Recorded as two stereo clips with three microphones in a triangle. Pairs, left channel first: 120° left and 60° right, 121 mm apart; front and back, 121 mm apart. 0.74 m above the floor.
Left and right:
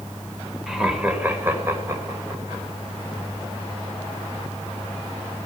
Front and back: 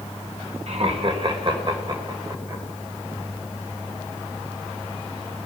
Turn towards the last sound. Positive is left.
turn(degrees=-120)